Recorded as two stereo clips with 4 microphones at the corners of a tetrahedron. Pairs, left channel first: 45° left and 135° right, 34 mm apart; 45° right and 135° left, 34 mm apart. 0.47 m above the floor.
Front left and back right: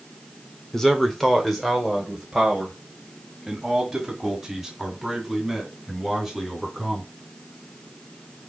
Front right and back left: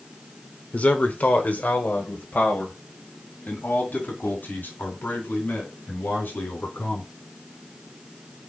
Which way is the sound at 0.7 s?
30° right.